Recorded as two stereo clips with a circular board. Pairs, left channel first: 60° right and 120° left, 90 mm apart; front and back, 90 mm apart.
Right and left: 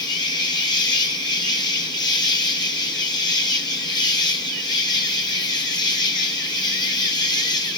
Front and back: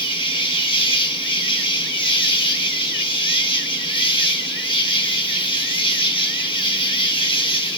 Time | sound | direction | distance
0.0 | an insect | 20° right | 0.8 m